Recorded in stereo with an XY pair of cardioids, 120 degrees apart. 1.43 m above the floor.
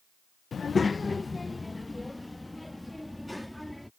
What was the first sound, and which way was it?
A child speaking, 35° left.